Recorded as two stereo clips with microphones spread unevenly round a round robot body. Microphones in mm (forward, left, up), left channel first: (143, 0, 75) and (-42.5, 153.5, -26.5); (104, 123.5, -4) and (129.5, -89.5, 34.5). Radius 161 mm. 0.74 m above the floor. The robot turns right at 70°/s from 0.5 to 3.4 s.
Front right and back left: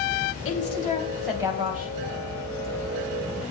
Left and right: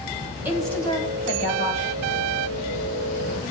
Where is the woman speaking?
Straight ahead, 4.5 m; by 1.9 s 100° left, 4.5 m.